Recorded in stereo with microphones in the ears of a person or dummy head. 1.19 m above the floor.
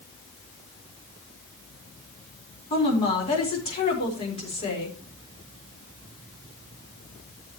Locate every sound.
2.7 s a woman speaking: 35° left (ahead or behind), 4.5 m